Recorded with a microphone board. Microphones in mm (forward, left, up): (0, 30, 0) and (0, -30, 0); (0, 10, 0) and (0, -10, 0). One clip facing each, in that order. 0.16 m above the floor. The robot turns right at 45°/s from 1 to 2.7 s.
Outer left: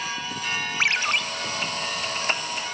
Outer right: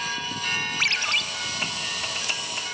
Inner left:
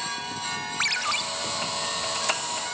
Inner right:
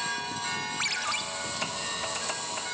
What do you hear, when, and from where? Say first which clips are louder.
0.8 s a ringtone: outer left 4 dB, inner left 6 dB; 30° left (ahead or behind), 0.6 m; by 1.2 s 25° left (ahead or behind), 0.6 m